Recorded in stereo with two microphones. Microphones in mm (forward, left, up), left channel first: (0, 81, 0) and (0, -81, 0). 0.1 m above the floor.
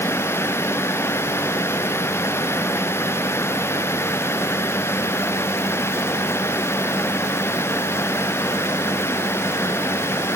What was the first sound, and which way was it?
Only background noise.